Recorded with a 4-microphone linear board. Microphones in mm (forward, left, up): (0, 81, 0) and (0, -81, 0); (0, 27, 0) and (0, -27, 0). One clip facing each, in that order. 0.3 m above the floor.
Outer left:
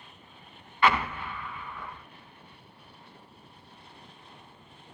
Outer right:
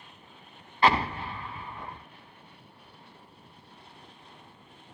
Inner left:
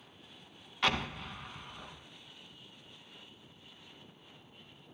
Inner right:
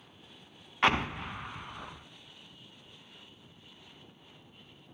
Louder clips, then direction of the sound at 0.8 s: Outer right 1 dB, inner right 5 dB; 35° right (ahead or behind).